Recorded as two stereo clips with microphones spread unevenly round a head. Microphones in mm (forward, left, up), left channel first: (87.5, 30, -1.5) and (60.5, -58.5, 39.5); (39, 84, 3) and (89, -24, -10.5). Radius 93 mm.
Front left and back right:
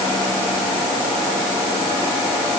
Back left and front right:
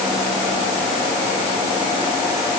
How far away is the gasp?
No gasp in this recording.